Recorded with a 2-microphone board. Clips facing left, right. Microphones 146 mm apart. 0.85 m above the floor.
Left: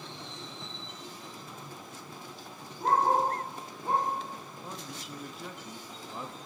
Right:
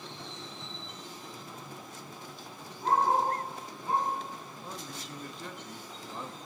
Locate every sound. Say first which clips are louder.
2.8 s a dog barking: left 1 dB; 55° left (ahead or behind), 10 m
4.6 s a man speaking: even; 5° left (ahead or behind), 1.1 m